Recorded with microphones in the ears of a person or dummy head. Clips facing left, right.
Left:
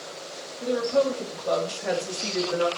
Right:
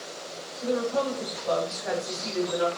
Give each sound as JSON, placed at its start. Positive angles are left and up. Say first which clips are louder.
{"t": 0.6, "sound": "a woman speaking", "louder": "left 3 dB", "side_deg": 30, "distance_m": 4.5}